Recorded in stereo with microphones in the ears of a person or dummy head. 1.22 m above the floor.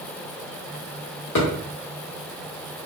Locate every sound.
1.4 s a thud: 55° left (ahead or behind), 1.1 m